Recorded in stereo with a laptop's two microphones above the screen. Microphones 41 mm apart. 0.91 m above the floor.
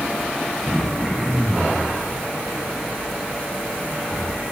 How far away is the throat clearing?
About 8 m.